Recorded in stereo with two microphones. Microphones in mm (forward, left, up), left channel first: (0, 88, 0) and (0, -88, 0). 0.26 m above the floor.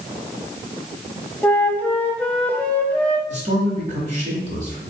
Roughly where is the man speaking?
Right.